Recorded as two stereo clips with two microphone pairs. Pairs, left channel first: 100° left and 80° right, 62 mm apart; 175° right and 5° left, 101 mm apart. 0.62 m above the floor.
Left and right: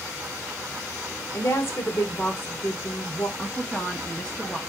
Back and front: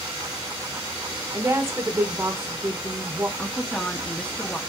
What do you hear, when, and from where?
1.3 s a woman speaking: 60° left, 1.4 m
3.4 s a woman speaking: 135° left, 1.1 m